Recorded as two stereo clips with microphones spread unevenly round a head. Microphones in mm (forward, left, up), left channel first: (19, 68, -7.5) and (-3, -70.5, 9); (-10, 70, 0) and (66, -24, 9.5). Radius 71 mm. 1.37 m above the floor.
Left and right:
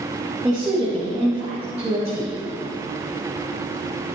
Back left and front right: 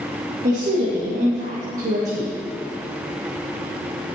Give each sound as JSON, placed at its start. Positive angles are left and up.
{"t": 0.4, "sound": "a woman speaking", "azimuth_deg": -25, "distance_m": 2.0}